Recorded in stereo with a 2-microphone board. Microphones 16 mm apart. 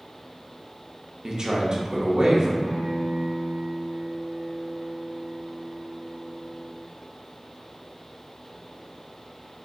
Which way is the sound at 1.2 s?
45° right (ahead or behind).